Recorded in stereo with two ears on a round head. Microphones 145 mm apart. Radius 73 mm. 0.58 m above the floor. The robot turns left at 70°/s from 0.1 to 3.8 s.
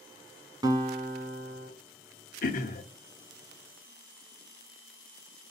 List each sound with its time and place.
0.6 s a guitar: 25° right, 1.3 m; by 1.7 s 100° right, 1.3 m
2.4 s throat clearing: 55° left (ahead or behind), 0.8 m; by 2.8 s 45° left (ahead or behind), 0.8 m